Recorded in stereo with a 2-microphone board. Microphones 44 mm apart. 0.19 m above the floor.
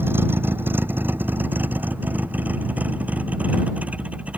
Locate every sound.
0.0 s a vehicle: 60° right (ahead or behind); by 4.4 s 30° right (ahead or behind)